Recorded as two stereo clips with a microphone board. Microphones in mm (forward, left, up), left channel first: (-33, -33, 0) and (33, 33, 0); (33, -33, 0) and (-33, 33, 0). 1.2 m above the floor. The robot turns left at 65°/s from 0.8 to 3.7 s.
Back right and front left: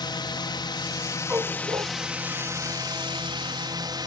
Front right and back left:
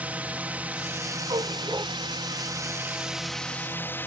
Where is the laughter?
No laughter in this recording.